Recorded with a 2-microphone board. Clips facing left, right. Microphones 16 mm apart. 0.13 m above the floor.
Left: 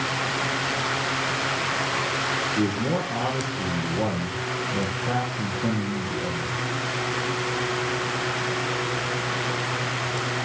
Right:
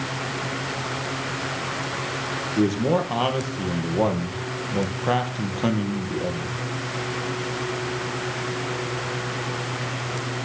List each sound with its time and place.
2.6 s a man speaking: 50° right (ahead or behind), 3 m